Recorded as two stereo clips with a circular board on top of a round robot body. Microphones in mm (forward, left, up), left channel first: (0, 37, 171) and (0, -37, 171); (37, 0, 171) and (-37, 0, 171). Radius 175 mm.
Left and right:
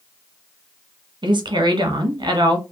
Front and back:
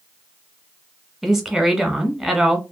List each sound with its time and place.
1.2 s a woman speaking: 90° right, 1.3 m